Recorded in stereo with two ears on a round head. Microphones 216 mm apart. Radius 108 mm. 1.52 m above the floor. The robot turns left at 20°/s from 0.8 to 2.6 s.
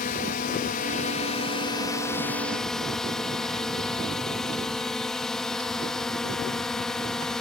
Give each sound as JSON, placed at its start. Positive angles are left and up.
{"t": 0.0, "sound": "a drone", "azimuth_deg": 40}